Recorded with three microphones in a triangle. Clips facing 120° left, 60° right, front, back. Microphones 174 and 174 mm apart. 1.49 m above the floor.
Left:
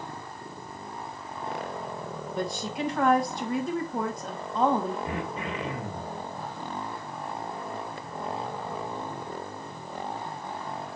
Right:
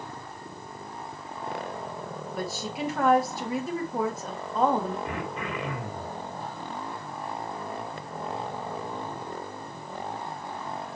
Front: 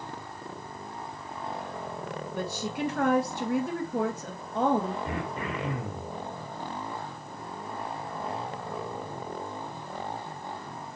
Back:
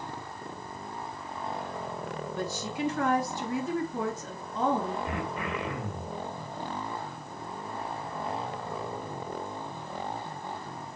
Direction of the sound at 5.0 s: 55° left.